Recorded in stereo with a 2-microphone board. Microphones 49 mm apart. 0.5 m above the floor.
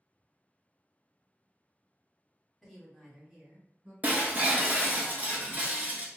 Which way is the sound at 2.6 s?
10° left (ahead or behind).